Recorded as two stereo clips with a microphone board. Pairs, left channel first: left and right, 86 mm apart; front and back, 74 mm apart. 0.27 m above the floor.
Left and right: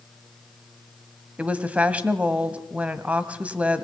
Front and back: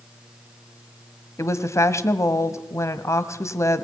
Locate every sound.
1.4 s a woman speaking: 20° right, 1.6 m